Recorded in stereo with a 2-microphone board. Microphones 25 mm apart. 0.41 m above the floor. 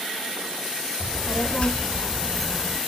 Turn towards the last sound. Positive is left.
turn(degrees=-5)  # may be behind; listen again after turning